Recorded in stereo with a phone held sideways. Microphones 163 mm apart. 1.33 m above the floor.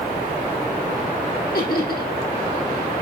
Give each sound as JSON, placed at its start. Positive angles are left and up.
{"t": 1.5, "sound": "laughter", "side_deg": 85, "distance_m": 3.5}